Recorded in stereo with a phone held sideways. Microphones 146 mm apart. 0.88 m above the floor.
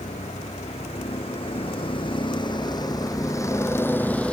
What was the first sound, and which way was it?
A vehicle, 50° left (ahead or behind).